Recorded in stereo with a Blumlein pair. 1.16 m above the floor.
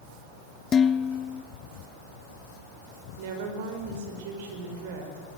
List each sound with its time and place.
0.7 s dishes clattering: 20° left, 0.5 m
3.2 s a woman speaking: 50° right, 5 m